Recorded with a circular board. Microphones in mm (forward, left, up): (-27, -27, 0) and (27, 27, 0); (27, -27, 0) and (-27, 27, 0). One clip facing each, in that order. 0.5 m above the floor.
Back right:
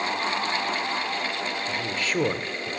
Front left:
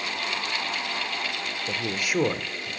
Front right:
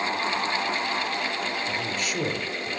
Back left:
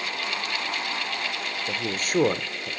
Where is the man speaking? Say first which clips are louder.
Even, back left 1 dB; 90° left, 1.4 m; by 2.7 s 170° left, 1.4 m.